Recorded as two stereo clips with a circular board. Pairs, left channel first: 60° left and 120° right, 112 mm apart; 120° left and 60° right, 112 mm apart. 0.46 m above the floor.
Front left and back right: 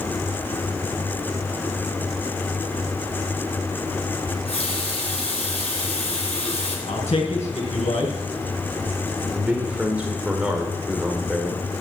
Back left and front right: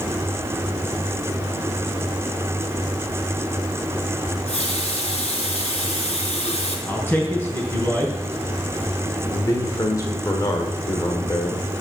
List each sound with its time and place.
4.3 s a running tap: 90° left, 4 m
6.9 s a man speaking: 50° left, 3.5 m
9.3 s a man speaking: 165° left, 1.5 m